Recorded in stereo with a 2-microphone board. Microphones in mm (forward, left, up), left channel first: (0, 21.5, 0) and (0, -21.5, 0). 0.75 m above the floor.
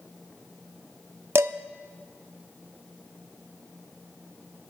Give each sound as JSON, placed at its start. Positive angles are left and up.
{"t": 1.4, "sound": "dishes clattering", "side_deg": -70, "distance_m": 0.7}